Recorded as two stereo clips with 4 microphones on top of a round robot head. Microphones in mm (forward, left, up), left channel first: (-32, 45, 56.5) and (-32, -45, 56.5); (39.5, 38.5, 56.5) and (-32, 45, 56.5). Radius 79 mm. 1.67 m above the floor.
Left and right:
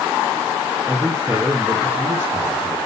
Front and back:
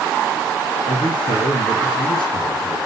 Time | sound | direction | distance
0.9 | a man speaking | 10° right | 3 m